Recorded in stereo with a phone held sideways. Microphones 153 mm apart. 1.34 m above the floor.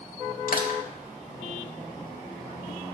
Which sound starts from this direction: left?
Crushing, at 0.5 s.